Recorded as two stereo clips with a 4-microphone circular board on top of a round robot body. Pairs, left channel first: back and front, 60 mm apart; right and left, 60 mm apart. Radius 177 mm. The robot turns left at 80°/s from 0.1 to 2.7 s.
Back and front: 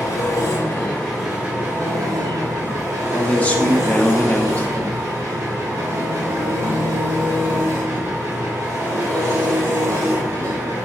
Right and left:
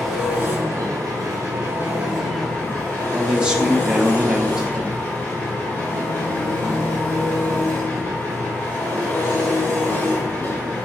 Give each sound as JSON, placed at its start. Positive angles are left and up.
{"t": 0.0, "sound": "an engine running", "azimuth_deg": 175, "distance_m": 1.8}
{"t": 3.1, "sound": "a man speaking", "azimuth_deg": 150, "distance_m": 0.7}